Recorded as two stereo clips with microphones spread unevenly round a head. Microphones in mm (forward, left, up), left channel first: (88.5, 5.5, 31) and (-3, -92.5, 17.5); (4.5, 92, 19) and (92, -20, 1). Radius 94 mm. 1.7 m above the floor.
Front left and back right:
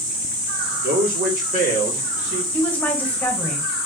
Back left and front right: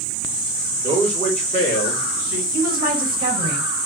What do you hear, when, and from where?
0.8 s a man speaking: 120° right, 2.5 m; by 2.4 s 95° right, 2.5 m
2.5 s a woman speaking: 30° right, 2 m